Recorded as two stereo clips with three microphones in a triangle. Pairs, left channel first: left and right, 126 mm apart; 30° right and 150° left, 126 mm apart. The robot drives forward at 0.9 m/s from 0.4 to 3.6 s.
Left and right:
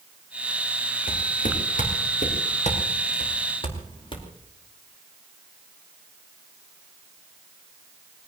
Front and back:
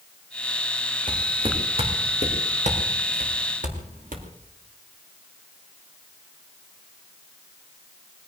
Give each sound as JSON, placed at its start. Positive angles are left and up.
{"t": 1.1, "sound": "footsteps", "azimuth_deg": 95, "distance_m": 6.0}